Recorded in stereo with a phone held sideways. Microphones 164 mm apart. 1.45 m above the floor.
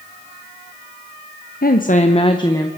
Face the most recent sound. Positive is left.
turn(degrees=15)  # may be behind; listen again after turning